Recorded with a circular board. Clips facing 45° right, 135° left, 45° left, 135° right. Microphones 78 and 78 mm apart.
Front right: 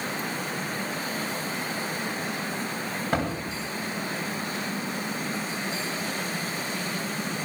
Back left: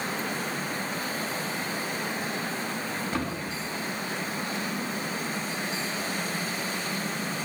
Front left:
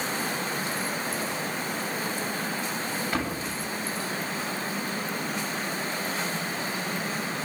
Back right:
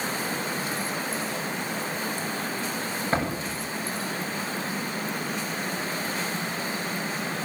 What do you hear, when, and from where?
3.1 s a door slam: 75° right, 8.5 m